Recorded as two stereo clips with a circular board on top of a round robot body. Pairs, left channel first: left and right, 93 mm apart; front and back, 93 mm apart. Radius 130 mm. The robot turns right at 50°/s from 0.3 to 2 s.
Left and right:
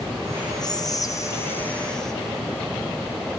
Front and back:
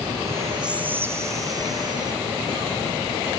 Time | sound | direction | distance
0.6 | whispering | 100° left | 1.2 m